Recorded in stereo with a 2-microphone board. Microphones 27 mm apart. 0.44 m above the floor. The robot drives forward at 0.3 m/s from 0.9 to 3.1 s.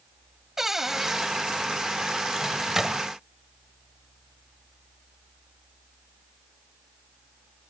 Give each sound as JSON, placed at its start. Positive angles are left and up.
{"t": 0.6, "sound": "a cupboard door", "side_deg": -15}
{"t": 2.4, "sound": "a microwave", "side_deg": -15}